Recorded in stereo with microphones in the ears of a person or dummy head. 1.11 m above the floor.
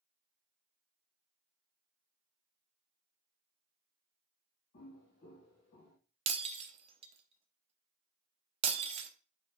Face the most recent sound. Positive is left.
turn(degrees=-25)  # may be behind; listen again after turning